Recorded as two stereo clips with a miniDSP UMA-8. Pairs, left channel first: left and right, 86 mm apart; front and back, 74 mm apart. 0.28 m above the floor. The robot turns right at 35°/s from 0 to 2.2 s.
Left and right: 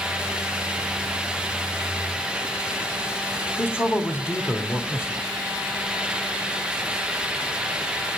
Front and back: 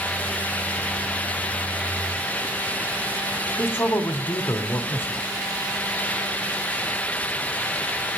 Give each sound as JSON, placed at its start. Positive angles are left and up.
{"t": 3.6, "sound": "a man speaking", "azimuth_deg": 40, "distance_m": 1.7}